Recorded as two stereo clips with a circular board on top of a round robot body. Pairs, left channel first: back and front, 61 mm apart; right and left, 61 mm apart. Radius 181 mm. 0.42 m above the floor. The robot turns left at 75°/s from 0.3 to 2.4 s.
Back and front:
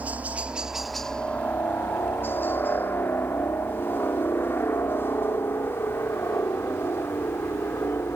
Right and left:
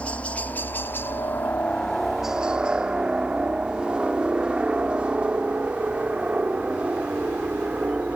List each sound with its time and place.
0.0 s a helicopter: 40° right; by 8.2 s 150° left